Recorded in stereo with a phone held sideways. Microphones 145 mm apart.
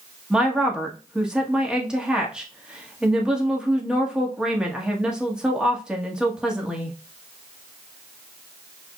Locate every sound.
0.3 s a woman speaking: 5° right (ahead or behind), 1.6 m